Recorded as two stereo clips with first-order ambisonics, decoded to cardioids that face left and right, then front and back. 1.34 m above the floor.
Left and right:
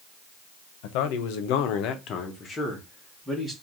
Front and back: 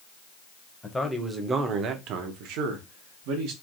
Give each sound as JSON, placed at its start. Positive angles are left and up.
{"t": 0.8, "sound": "a man speaking", "azimuth_deg": 80, "distance_m": 0.7}